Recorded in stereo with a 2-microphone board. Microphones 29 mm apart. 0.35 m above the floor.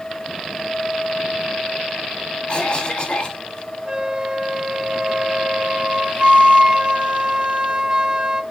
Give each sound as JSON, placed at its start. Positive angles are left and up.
{"t": 2.5, "sound": "a cough", "side_deg": 35, "distance_m": 2.0}
{"t": 3.9, "sound": "a flute", "side_deg": -35, "distance_m": 1.5}